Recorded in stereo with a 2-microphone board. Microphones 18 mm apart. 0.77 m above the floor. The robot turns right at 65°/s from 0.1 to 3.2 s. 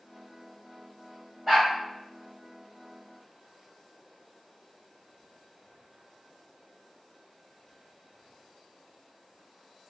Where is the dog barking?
5° right (ahead or behind), 1.4 m; by 1.7 s 10° left (ahead or behind), 1.4 m.